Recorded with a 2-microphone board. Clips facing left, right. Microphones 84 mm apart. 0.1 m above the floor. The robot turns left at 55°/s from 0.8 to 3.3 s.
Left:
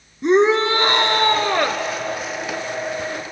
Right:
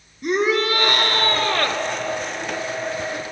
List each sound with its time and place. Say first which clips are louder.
0.2 s a shout: left 5 dB; 30° left (ahead or behind), 1.3 m; by 1.8 s 10° left (ahead or behind), 1.3 m